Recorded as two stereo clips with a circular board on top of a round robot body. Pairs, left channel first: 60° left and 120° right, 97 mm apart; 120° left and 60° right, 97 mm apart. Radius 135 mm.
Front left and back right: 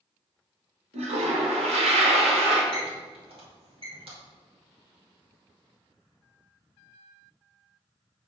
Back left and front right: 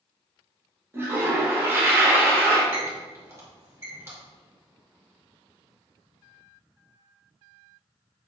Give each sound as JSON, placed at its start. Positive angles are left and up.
{"t": 0.9, "sound": "a toilet flushing", "azimuth_deg": -130, "distance_m": 0.8}
{"t": 2.7, "sound": "a squeak", "azimuth_deg": -120, "distance_m": 1.8}